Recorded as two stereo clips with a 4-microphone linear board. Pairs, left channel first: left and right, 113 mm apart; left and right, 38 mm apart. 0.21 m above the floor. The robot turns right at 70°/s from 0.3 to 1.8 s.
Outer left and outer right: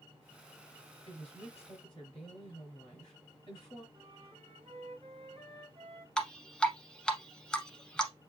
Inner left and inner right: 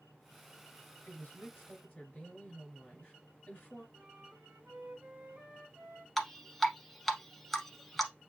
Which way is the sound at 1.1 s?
80° left.